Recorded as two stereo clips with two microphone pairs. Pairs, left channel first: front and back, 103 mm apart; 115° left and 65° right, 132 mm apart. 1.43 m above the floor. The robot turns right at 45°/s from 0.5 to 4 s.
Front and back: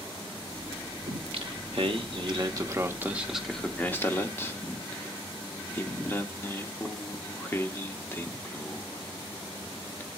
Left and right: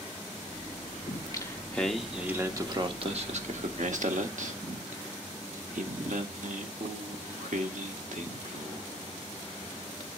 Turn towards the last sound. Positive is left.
turn(degrees=-65)